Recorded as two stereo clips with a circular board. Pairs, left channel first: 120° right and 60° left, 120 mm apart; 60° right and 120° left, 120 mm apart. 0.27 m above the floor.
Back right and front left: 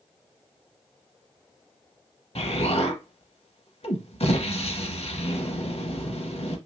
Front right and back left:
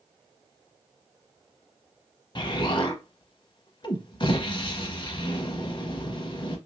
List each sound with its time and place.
2.4 s an explosion: 100° right, 0.6 m